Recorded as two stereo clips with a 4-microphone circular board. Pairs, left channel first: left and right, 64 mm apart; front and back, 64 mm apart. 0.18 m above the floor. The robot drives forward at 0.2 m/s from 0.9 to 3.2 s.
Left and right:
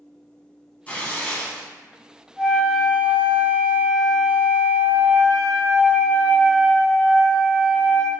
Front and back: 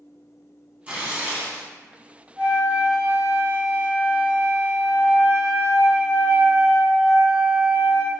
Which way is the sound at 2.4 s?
165° right.